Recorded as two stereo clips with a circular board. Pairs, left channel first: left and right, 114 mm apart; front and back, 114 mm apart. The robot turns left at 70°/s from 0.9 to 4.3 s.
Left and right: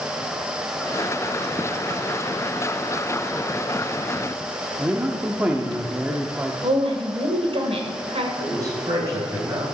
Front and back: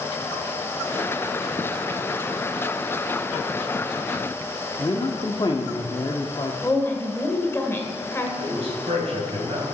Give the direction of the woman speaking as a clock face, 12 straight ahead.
2 o'clock.